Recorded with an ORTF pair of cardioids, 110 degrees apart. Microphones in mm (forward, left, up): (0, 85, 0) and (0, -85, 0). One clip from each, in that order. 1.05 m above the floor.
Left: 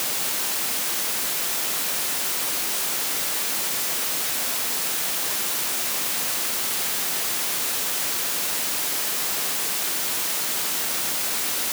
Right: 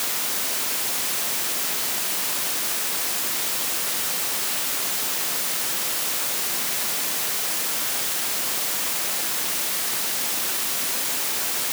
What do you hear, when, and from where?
Only background noise.